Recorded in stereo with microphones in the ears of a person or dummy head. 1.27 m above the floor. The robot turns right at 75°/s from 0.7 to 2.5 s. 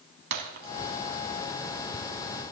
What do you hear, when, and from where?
0.3 s breaking glass: 65° right (ahead or behind), 2.5 m; by 2.5 s 50° left (ahead or behind), 2.5 m